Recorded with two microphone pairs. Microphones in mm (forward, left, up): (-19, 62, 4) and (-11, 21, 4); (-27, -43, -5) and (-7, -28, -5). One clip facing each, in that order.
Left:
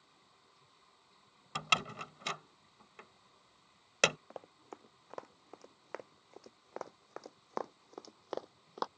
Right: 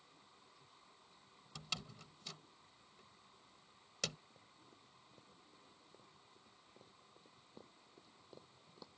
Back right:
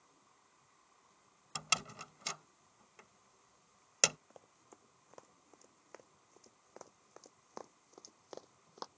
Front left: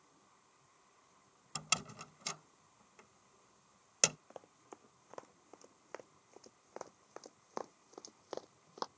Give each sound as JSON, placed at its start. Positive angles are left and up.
{"t": 1.6, "sound": "a door slam", "azimuth_deg": 135}
{"t": 4.3, "sound": "running footsteps", "azimuth_deg": 100}